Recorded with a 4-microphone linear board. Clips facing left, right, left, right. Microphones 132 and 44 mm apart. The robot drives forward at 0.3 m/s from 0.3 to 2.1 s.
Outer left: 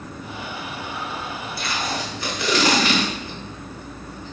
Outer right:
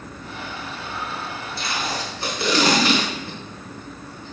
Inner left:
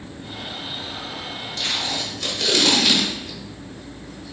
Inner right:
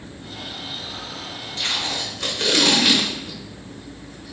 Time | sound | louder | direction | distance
1.6 | tape being pulled | even, inner right 1 dB | 25° right (ahead or behind) | 0.9 m